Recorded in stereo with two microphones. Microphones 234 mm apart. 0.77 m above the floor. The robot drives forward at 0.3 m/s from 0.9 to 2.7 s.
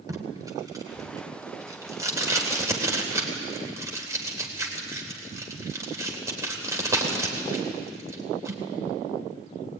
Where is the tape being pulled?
15° right (ahead or behind), 3 m.